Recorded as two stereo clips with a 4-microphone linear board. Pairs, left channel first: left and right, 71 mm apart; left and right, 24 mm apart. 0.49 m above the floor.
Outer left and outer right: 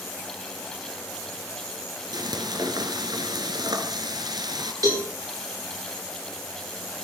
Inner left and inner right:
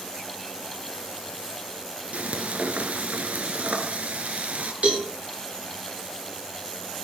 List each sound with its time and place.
2.1 s frying: 75° right (ahead or behind), 2 m
4.8 s a cowbell: 55° right (ahead or behind), 8.5 m